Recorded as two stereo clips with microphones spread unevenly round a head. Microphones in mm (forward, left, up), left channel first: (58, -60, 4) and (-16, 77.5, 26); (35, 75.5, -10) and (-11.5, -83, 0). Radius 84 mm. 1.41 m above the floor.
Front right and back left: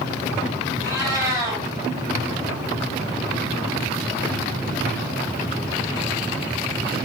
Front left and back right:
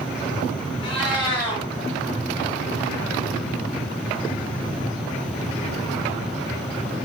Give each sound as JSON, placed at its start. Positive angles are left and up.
{"t": 0.8, "sound": "a cat meowing", "azimuth_deg": 90, "distance_m": 1.3}